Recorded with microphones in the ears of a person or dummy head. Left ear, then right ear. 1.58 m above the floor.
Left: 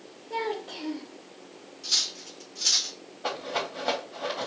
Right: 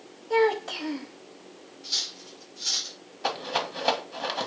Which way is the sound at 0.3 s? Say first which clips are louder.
Right 8 dB; 50° right (ahead or behind).